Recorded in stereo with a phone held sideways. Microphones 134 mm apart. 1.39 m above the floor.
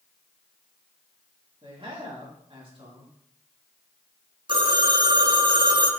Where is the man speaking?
40° right (ahead or behind), 2 m.